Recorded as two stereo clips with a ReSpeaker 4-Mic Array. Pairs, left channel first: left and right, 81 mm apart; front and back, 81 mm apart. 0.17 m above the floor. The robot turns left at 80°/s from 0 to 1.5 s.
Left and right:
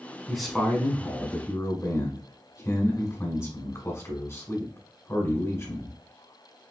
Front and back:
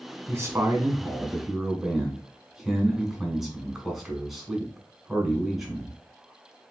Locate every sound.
0.3 s a man speaking: 170° right, 1.6 m; by 6.0 s 95° left, 1.6 m